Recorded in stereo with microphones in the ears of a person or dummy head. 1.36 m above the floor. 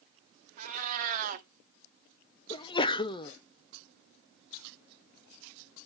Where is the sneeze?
20° left (ahead or behind), 0.6 m.